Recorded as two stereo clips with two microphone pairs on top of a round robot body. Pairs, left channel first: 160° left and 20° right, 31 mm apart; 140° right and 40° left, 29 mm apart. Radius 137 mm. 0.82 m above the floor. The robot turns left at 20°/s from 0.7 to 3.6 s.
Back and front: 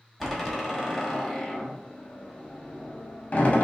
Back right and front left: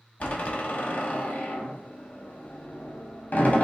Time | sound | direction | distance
0.2 | a door slam | 110° right | 1.7 m